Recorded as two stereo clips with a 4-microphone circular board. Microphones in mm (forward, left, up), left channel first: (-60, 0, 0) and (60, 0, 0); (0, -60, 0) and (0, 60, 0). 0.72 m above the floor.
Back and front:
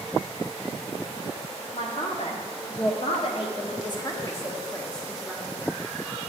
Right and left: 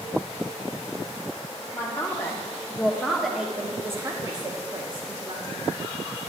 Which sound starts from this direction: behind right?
A man speaking, at 1.7 s.